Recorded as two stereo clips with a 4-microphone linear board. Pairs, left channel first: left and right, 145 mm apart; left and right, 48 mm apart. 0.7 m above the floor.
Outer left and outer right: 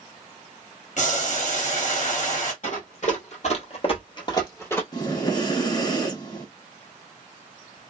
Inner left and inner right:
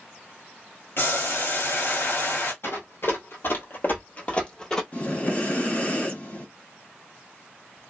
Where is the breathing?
30° left (ahead or behind), 1.1 m.